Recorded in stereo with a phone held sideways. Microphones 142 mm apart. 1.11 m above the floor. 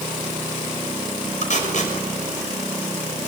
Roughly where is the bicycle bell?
No bicycle bell in this recording.